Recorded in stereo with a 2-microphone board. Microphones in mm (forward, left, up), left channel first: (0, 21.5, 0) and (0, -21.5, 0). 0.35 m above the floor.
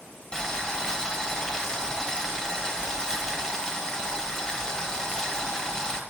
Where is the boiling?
15° left (ahead or behind), 1.3 m.